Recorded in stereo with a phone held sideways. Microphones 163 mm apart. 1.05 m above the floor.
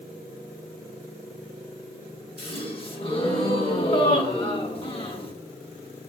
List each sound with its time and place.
2.4 s a gasp: 35° left (ahead or behind), 0.7 m